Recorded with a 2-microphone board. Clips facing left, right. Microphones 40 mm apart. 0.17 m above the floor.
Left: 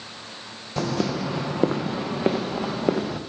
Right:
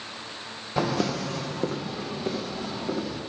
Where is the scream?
No scream in this recording.